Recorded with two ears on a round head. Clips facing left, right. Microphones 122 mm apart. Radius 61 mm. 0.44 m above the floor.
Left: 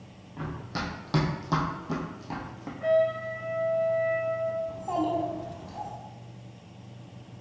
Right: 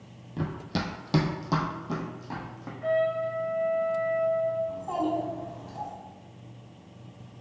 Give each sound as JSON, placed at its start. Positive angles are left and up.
{"t": 0.4, "sound": "running footsteps", "side_deg": -45, "distance_m": 0.8}
{"t": 2.8, "sound": "a trumpet", "side_deg": 65, "distance_m": 1.7}
{"t": 4.7, "sound": "a child speaking", "side_deg": 20, "distance_m": 0.9}